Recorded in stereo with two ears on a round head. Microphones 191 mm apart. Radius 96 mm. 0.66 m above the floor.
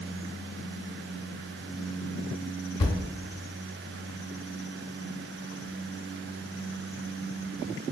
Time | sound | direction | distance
2.8 | a thud | 20° left (ahead or behind) | 0.8 m